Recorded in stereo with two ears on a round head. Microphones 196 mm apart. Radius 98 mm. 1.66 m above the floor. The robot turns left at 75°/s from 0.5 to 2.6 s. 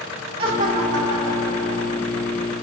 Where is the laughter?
25° right, 2 m; by 2.0 s 135° right, 2 m.